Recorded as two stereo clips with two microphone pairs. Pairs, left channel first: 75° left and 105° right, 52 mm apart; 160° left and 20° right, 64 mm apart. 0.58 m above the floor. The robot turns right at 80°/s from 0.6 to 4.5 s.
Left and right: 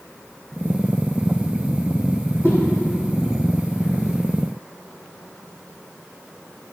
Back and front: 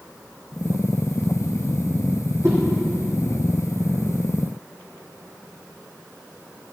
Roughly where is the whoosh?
Ahead right.